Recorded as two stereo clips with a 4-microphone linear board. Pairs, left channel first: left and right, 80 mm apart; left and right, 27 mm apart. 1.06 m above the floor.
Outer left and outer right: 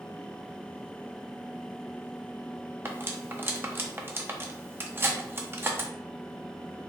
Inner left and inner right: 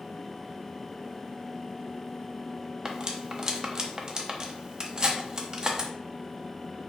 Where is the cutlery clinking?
30° right (ahead or behind), 0.6 m.